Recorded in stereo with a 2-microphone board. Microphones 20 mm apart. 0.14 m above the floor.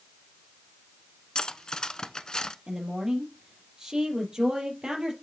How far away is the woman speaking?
About 3.5 m.